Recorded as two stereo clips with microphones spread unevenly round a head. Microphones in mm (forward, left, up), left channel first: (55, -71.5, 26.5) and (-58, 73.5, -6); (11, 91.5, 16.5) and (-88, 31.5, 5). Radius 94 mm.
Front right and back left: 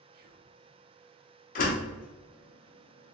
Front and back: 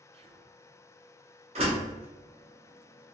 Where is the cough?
No cough in this recording.